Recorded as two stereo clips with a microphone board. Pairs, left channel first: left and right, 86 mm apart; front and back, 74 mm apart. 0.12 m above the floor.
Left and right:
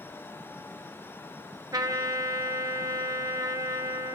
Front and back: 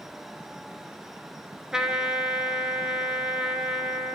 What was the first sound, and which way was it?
A trumpet, 105° right.